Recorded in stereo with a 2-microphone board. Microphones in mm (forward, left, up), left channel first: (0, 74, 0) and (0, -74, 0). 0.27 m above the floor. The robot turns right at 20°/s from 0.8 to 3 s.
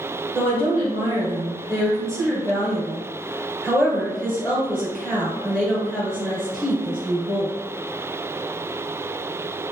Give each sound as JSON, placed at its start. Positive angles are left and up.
{"t": 0.3, "sound": "a woman speaking", "azimuth_deg": -30, "distance_m": 1.6}